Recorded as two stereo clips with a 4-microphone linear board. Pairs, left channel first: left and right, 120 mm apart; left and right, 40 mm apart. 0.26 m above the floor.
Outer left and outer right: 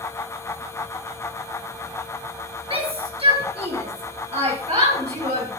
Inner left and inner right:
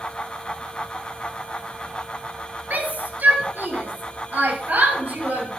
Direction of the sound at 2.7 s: 55° right (ahead or behind).